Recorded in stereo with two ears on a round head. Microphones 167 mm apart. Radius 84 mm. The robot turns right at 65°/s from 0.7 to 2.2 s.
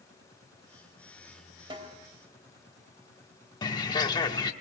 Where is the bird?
25° left (ahead or behind), 1.2 m.